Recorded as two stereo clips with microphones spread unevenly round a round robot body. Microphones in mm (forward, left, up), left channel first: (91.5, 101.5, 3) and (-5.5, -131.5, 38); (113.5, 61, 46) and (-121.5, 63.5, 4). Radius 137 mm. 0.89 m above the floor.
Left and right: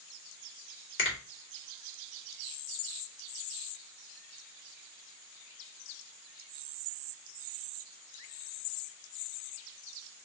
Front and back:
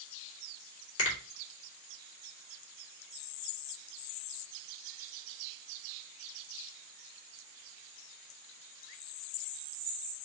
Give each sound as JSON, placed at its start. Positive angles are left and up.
{"t": 1.0, "sound": "a finger snap", "azimuth_deg": 30, "distance_m": 2.5}